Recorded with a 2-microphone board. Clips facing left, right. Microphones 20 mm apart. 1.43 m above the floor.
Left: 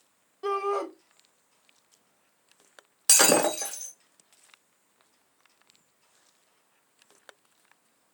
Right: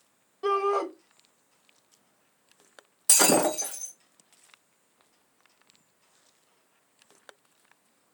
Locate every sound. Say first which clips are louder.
0.4 s a shout: right 3 dB; 10° right (ahead or behind), 0.7 m
3.1 s breaking glass: left 1 dB; 50° left (ahead or behind), 1.6 m